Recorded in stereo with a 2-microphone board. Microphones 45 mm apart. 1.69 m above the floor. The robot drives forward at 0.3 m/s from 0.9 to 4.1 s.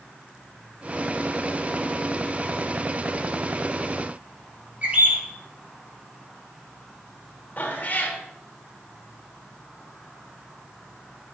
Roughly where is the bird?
Right.